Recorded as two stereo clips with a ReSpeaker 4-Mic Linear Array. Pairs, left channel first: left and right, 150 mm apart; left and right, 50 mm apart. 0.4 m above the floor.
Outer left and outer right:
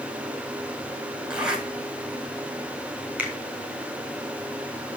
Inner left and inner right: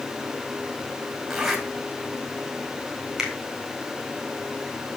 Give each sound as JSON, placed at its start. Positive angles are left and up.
{"t": 1.3, "sound": "a zipper", "side_deg": -5, "distance_m": 3.0}
{"t": 3.2, "sound": "a finger snap", "side_deg": -5, "distance_m": 4.0}